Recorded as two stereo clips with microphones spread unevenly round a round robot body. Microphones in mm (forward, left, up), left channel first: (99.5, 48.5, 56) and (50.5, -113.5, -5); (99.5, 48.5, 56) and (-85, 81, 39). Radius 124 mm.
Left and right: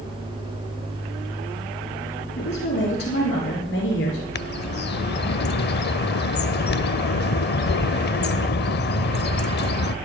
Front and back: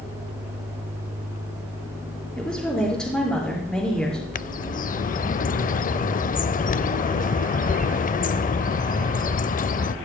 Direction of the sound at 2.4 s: 75° left.